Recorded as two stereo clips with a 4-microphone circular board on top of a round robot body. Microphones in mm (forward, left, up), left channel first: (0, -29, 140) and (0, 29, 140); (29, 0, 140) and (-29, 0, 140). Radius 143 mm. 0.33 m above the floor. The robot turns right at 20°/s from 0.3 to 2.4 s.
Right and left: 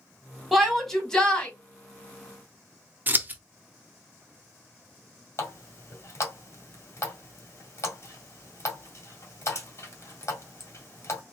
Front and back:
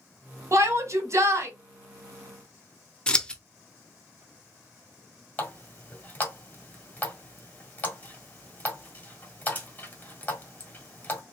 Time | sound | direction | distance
0.5 | a shout | straight behind | 2.0 m
3.1 | scissors | 60° left | 1.0 m
5.4 | a running tap | 60° right | 1.8 m